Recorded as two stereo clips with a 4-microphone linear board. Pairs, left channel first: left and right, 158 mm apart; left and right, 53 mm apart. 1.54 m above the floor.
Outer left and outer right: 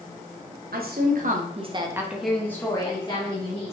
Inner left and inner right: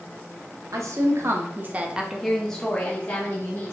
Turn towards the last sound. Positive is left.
turn(degrees=40)  # may be behind; listen again after turning